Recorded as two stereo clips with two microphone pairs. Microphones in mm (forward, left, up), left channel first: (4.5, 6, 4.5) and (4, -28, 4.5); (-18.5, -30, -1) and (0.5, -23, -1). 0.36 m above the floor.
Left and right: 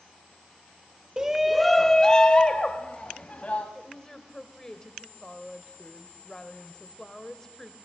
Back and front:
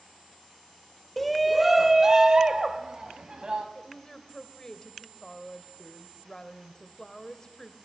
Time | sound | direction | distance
1.2 | a shout | 90° right | 0.9 m
3.8 | a woman speaking | 155° left | 1.7 m